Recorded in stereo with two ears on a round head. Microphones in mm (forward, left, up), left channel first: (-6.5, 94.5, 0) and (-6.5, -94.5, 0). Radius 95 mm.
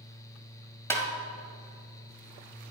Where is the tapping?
10° left (ahead or behind), 1.7 m.